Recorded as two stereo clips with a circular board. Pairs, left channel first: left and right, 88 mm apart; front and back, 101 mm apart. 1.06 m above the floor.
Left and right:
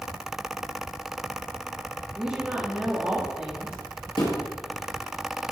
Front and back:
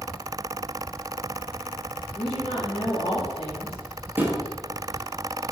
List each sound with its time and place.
2.1 s a woman speaking: 10° right, 2 m
4.2 s a thud: 115° left, 2 m